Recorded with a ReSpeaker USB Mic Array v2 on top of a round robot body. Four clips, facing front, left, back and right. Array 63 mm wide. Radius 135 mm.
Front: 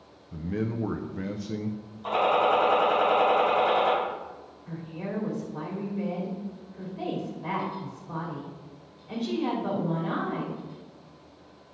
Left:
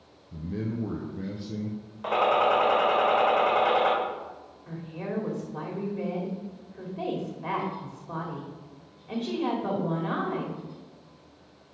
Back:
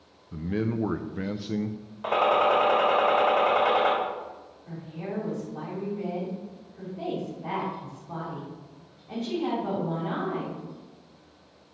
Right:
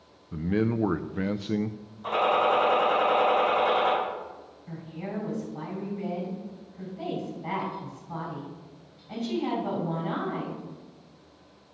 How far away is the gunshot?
About 3 m.